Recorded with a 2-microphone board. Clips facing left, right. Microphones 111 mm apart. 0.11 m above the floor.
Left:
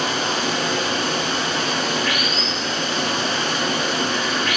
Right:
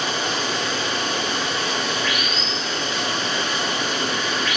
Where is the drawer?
I don't hear a drawer.